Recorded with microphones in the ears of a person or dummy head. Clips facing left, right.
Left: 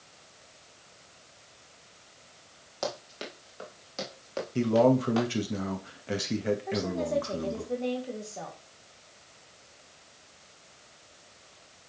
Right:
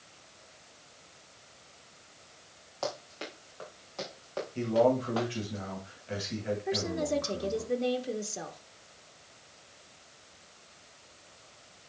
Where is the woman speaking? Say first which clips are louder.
Left 1 dB; 20° right (ahead or behind), 1.8 m.